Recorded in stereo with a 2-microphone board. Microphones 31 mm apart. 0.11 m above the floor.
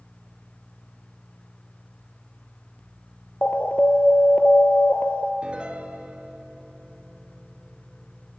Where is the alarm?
50° left (ahead or behind), 1.4 m.